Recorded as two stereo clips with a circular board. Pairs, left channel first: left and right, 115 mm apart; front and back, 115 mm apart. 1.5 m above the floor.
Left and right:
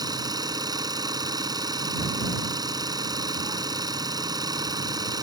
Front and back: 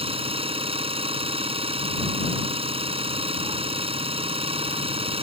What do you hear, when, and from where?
0.0 s an engine running: 145° right